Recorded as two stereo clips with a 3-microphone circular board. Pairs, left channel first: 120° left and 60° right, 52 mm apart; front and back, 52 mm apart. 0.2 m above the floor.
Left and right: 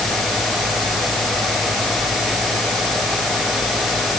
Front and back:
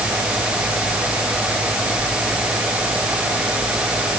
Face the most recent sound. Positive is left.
No sound to turn to.